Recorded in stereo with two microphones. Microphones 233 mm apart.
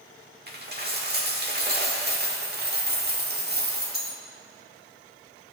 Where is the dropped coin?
45° right (ahead or behind), 1.2 m.